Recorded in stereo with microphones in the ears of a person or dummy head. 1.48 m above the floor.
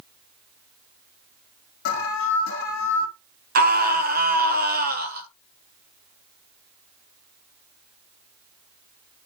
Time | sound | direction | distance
1.9 | an alarm | 60° left (ahead or behind) | 2.5 m
3.5 | a scream | 45° right (ahead or behind) | 1.4 m